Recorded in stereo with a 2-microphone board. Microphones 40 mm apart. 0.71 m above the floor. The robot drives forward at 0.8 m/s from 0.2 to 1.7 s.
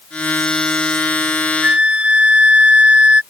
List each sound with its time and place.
1.6 s a flute: 30° right (ahead or behind)